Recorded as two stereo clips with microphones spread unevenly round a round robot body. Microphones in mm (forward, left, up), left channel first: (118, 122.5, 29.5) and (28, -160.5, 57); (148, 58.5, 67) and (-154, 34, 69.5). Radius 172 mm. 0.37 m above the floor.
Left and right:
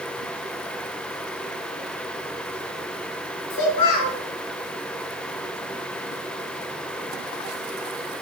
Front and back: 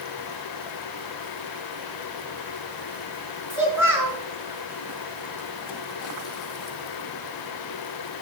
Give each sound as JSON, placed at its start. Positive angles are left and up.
{"t": 3.5, "sound": "a child speaking", "azimuth_deg": 100, "distance_m": 3.5}